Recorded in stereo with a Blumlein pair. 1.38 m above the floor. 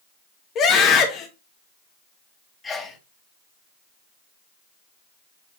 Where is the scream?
35° left, 1.7 m.